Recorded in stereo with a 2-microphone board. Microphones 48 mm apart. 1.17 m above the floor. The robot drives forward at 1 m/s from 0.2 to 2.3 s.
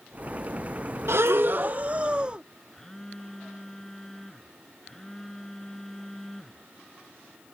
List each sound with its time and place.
1.1 s breathing: 70° right (ahead or behind); by 2.5 s 25° right (ahead or behind)
2.7 s a phone buzzing: 10° left (ahead or behind)